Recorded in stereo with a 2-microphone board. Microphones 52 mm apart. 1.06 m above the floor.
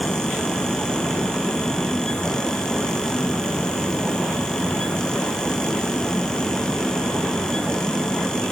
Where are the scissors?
No scissors in this recording.